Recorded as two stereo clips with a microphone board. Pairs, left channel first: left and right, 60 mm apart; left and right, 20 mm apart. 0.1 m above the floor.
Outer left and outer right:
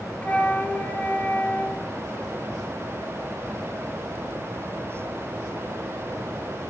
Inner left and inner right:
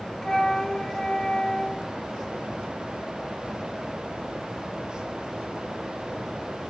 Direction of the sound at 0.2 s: 25° left (ahead or behind).